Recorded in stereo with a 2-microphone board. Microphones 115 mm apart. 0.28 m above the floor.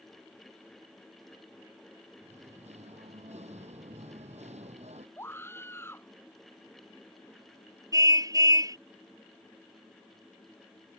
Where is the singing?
75° right (ahead or behind).